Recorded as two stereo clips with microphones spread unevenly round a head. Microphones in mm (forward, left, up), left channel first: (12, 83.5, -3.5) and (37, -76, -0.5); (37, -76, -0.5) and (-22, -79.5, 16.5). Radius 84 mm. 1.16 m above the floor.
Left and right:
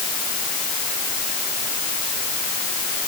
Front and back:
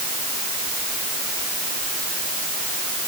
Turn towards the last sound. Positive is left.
No sound to turn to.